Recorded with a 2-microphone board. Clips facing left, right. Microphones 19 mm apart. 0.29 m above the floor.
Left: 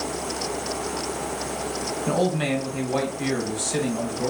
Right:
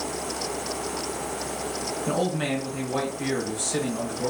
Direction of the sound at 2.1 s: 20° left (ahead or behind).